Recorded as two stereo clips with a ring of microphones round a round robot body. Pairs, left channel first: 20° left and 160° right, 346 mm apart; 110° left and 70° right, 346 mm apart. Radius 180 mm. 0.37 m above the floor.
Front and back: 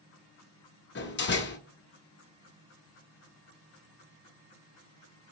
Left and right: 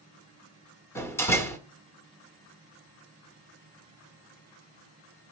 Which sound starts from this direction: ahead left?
A door slam, at 0.9 s.